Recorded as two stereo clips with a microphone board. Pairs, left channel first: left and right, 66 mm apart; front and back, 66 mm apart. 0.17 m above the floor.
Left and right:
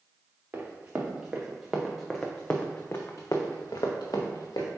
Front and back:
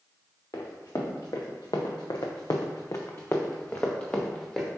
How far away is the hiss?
No hiss in this recording.